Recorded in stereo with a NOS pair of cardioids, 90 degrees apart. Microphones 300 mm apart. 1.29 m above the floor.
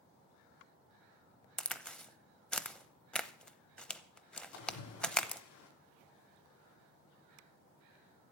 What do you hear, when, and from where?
1.6 s a crack: 5° left, 0.7 m
4.5 s a splash: 70° left, 3.5 m